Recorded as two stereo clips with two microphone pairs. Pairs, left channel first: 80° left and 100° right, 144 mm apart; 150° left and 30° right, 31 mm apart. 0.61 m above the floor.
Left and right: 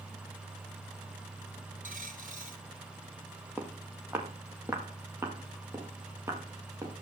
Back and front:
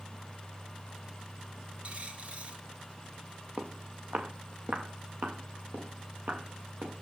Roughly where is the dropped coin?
Right.